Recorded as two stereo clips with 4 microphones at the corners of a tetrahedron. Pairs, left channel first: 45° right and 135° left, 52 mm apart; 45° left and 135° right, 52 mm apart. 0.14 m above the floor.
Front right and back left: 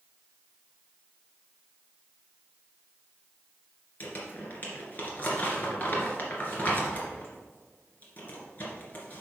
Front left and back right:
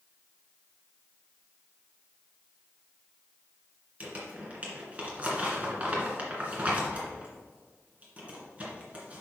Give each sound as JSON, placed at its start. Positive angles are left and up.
{"t": 4.0, "sound": "crumpling", "azimuth_deg": -80, "distance_m": 2.0}